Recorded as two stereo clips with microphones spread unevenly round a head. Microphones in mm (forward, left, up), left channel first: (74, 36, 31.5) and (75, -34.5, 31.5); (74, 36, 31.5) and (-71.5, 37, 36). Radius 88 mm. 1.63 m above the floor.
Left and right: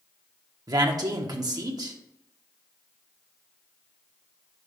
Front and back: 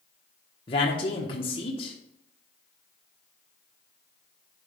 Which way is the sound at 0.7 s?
60° right.